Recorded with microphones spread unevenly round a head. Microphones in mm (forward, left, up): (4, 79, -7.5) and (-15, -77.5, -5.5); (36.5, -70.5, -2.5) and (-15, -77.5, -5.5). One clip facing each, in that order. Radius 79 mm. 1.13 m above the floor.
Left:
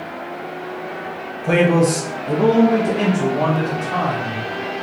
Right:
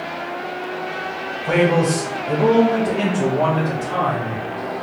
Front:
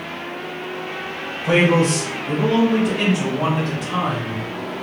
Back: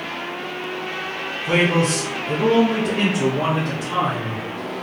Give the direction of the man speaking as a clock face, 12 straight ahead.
11 o'clock.